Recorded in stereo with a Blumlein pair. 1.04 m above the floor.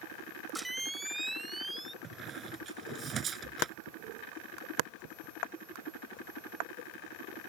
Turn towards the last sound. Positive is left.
turn(degrees=-25)